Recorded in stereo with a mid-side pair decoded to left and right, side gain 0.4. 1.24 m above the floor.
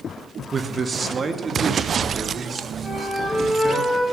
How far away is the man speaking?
About 1.4 m.